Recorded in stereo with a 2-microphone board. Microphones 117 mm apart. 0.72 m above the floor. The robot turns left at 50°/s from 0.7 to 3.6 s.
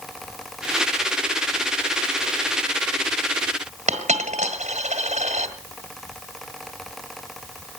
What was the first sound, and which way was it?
A dropped coin, 80° right.